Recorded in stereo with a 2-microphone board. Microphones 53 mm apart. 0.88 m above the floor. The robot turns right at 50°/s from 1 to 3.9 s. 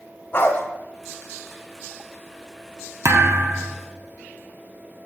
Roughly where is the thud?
Ahead right.